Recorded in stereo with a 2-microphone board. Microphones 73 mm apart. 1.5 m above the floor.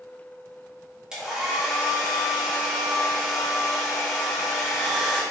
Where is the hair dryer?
10° right (ahead or behind), 1.2 m.